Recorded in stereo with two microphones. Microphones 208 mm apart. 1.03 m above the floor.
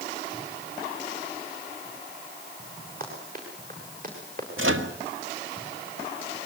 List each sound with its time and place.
3.0 s running footsteps: 45° right (ahead or behind), 8.5 m
4.6 s a microwave: 80° right, 1.7 m